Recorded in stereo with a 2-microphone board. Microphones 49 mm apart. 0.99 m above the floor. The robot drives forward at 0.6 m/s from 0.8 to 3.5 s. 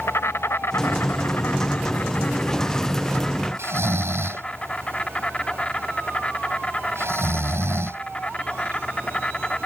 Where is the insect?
60° left (ahead or behind); by 9.7 s 20° left (ahead or behind).